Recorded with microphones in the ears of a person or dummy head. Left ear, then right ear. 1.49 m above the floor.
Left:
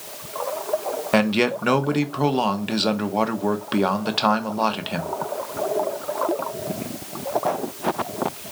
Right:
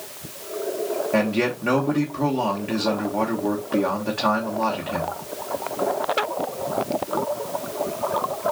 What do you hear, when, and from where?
1.1 s a man speaking: 60° left (ahead or behind), 0.9 m